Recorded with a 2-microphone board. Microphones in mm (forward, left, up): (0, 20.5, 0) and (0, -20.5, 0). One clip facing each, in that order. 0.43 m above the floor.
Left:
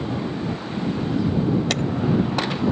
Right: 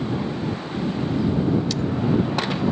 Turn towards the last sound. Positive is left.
turn(degrees=60)  # may be behind; listen again after turning